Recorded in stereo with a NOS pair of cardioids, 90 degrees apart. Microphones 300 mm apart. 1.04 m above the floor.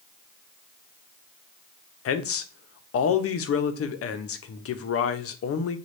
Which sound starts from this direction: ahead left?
A man speaking, at 2.0 s.